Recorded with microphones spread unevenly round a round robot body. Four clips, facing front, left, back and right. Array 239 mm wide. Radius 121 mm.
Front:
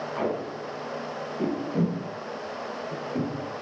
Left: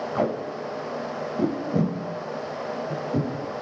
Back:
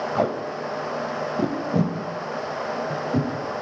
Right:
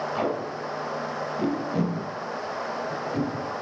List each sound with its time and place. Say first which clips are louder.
0.1 s tape being pulled: left 5 dB, back 4 dB; 155° left, 1.2 m